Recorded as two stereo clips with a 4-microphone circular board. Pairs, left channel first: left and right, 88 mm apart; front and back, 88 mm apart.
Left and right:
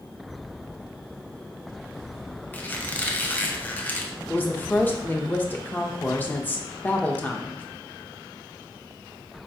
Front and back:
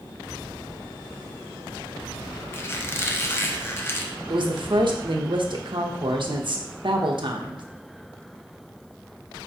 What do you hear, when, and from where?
2.5 s a squeak: 35° left, 0.5 m
4.3 s a woman speaking: 160° left, 0.6 m